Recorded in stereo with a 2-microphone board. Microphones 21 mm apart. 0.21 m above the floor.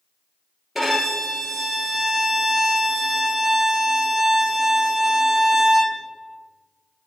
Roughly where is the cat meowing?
No cat meowing in this recording.